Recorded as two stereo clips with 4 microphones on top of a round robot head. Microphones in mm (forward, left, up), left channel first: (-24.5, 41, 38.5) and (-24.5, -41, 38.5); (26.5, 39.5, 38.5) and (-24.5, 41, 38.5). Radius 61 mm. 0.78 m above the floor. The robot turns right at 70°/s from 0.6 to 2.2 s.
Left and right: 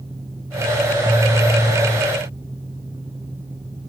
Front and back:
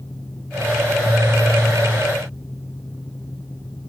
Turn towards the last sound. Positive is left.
No sound to turn to.